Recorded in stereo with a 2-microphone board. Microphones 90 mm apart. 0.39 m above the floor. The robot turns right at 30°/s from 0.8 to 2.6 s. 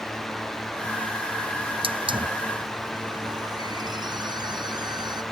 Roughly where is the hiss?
Right.